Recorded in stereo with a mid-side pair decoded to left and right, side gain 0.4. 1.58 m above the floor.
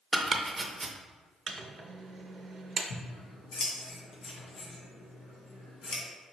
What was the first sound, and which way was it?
Chopping, 35° right.